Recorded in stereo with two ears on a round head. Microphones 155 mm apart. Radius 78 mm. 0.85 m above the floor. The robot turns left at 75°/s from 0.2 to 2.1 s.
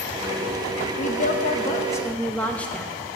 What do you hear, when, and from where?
1.0 s a woman speaking: 95° left, 0.6 m; by 2.9 s 10° left, 0.6 m